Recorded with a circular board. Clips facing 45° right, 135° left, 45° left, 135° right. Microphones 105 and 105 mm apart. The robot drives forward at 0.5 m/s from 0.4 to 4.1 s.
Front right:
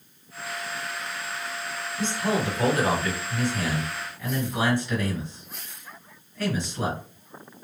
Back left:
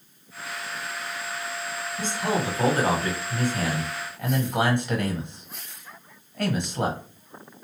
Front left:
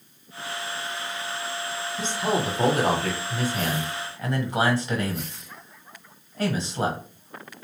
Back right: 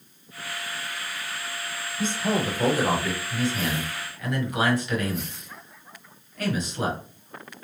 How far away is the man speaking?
About 1.4 m.